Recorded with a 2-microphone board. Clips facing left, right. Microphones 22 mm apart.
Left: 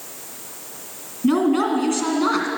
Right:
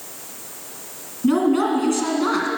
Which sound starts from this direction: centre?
A woman speaking, at 1.2 s.